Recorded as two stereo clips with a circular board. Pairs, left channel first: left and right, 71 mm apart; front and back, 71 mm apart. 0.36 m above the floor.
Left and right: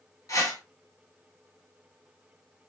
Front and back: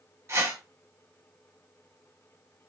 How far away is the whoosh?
About 1.2 m.